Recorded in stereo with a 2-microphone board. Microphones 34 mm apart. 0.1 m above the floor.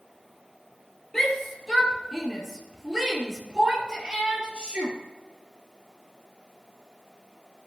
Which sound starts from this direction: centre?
A shout, at 1.1 s.